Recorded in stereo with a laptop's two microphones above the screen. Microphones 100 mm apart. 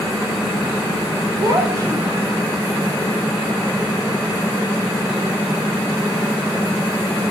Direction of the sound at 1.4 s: 35° right (ahead or behind).